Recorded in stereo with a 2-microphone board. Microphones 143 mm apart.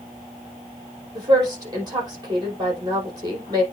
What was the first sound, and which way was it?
A woman speaking, 30° right (ahead or behind).